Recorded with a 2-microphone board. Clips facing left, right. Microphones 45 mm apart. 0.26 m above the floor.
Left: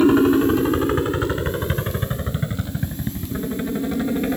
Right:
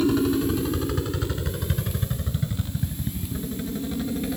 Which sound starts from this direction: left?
A helicopter, at 0.0 s.